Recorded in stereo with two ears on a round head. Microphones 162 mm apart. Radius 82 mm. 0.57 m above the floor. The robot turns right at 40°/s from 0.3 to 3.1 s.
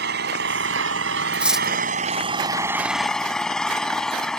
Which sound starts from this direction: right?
An engine running, at 0.0 s.